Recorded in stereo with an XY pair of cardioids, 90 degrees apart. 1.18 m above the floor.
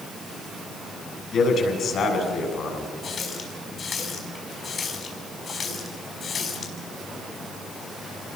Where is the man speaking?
65° left, 7.5 m.